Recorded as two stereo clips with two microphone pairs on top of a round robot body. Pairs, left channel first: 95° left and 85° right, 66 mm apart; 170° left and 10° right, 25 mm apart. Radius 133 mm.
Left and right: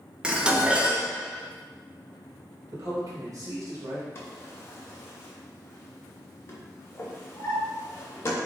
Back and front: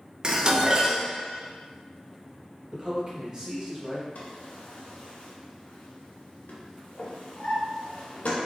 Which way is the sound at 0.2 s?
10° right.